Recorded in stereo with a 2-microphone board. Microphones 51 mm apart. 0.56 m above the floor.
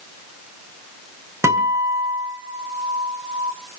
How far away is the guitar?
About 5 m.